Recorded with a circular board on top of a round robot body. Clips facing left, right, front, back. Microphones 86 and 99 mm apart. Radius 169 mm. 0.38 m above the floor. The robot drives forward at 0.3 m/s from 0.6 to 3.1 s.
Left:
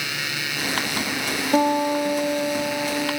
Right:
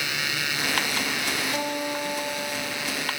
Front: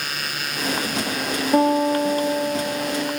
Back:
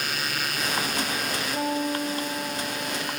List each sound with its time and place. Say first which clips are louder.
1.5 s a guitar: left 9 dB, front 11 dB; 35° left, 5.5 m